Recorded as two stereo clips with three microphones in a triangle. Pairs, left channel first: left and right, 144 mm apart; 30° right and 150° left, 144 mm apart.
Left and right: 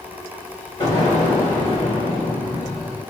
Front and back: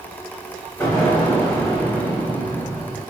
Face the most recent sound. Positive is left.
turn(degrees=45)